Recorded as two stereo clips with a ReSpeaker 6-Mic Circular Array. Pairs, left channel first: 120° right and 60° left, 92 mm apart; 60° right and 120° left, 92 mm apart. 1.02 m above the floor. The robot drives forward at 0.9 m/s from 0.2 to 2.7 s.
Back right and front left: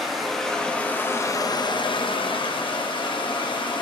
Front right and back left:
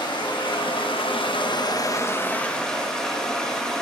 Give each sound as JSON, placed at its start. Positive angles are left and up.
{"t": 0.0, "sound": "running water", "azimuth_deg": -30, "distance_m": 1.5}